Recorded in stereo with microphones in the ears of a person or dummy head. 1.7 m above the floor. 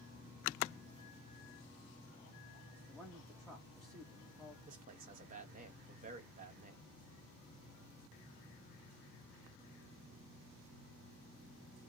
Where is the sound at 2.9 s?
Centre (ahead or behind), 0.9 m.